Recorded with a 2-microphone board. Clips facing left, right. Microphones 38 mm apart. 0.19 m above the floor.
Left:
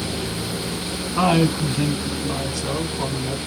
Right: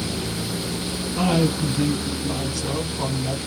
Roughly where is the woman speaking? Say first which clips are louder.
Left 3 dB; left.